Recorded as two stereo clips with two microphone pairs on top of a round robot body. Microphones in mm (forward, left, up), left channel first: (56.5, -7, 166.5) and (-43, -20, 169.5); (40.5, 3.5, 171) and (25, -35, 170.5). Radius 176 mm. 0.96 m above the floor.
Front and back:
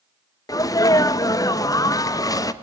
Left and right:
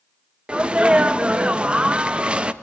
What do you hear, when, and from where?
0.5 s a sneeze: 45° right, 1.5 m